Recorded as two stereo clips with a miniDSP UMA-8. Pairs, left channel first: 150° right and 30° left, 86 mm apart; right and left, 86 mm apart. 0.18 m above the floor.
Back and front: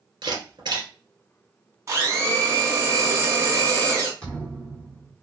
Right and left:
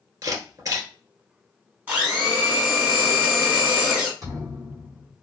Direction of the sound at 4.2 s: 135° left.